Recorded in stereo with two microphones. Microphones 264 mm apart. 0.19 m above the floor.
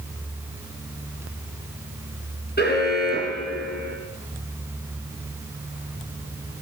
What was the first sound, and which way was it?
An alarm, 35° left (ahead or behind).